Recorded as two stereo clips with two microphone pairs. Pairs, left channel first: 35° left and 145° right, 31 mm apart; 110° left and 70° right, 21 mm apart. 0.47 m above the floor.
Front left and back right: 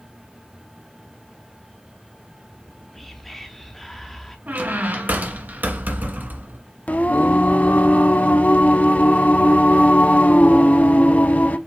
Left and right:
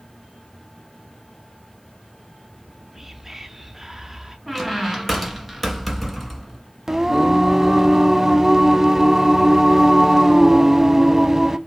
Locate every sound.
2.5 s whispering: 35° right, 0.9 m
4.5 s a squeak: 160° right, 1.2 m
6.9 s singing: 10° left, 0.6 m